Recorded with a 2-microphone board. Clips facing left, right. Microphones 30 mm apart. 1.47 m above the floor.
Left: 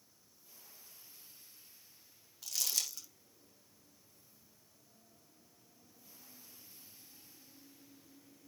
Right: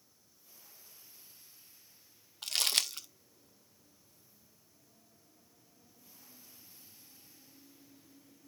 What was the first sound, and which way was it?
Crumpling, 55° right (ahead or behind).